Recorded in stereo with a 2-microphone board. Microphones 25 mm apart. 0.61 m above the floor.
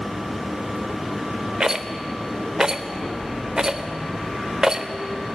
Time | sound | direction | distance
1.6 | a rattle | 30° right (ahead or behind) | 0.6 m